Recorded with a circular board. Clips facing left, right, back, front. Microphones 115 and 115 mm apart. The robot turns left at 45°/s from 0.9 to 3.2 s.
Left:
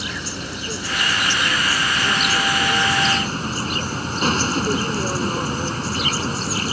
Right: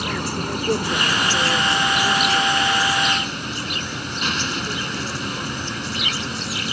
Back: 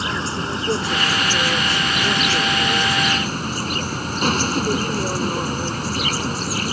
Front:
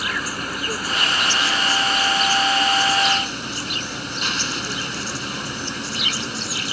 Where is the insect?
120° right; by 6.7 s 140° left.